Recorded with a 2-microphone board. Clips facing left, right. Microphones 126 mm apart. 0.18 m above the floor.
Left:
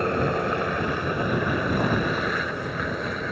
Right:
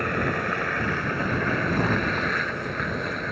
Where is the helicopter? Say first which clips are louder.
Left 3 dB; 25° left (ahead or behind); by 3.3 s centre (ahead or behind).